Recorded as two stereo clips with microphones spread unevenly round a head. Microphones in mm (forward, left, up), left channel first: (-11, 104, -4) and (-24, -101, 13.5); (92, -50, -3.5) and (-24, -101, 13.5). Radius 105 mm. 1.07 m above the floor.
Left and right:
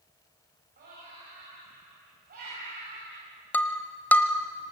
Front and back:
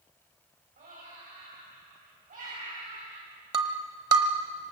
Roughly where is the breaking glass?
Behind.